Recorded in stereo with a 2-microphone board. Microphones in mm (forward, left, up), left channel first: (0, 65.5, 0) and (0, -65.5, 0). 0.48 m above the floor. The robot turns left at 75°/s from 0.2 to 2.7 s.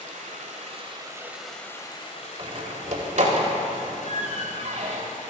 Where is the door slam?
45° right (ahead or behind), 1.5 m; by 5.0 s 60° right (ahead or behind), 1.5 m.